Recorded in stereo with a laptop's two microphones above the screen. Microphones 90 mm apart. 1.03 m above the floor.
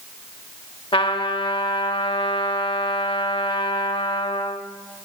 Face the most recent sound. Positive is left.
turn(degrees=80)